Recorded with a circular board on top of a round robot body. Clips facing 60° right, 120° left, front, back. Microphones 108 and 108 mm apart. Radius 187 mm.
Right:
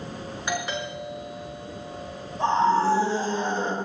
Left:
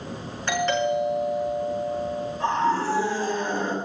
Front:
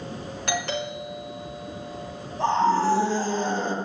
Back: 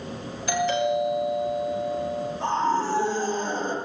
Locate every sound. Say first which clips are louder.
0.5 s a doorbell: left 8 dB, back 6 dB; 20° left, 5.5 m
2.4 s a scream: right 3 dB, front 4 dB; straight ahead, 7 m